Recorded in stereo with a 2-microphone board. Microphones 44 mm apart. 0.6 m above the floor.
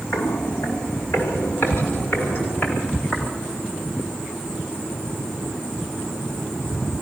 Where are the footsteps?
70° left (ahead or behind), 5 m; by 3.3 s 35° left (ahead or behind), 8.5 m.